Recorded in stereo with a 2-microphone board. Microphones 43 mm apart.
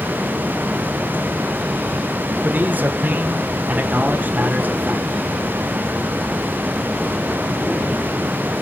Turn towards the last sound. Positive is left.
turn(degrees=-45)  # may be behind; listen again after turning